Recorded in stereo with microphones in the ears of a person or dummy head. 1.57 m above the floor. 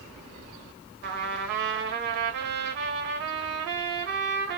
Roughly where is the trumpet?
Right.